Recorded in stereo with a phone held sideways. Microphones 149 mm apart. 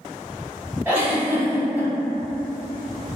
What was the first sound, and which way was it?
A giggle, 10° right (ahead or behind).